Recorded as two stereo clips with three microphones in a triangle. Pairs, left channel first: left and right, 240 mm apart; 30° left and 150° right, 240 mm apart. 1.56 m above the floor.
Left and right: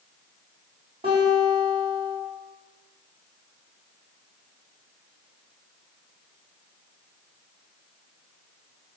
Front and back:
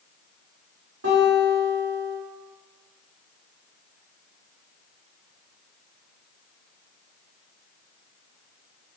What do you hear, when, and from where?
1.0 s a guitar: 160° right, 1.2 m